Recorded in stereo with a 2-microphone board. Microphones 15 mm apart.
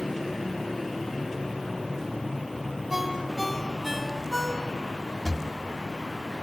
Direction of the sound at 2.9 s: 15° right (ahead or behind).